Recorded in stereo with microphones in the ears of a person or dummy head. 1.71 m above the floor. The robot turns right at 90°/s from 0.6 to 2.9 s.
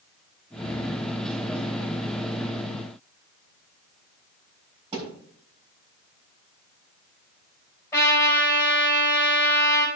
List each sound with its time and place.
4.9 s a thud: 35° right (ahead or behind), 4.5 m
7.9 s a trumpet: 10° left (ahead or behind), 4.5 m